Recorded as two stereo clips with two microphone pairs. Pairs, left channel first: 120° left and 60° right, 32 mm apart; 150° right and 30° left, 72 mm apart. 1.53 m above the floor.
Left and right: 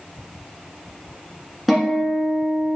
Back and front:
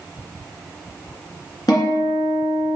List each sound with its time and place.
1.7 s a guitar: 165° right, 1.5 m